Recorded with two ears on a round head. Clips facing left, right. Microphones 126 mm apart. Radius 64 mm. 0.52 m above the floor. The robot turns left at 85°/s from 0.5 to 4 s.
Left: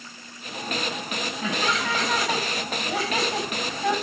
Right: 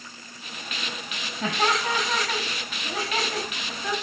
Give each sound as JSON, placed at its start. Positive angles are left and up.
{"t": 1.4, "sound": "laughter", "azimuth_deg": -115, "distance_m": 5.0}